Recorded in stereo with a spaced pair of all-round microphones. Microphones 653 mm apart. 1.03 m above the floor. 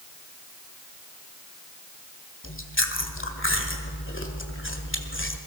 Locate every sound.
2.4 s chewing: 20° left (ahead or behind), 1.6 m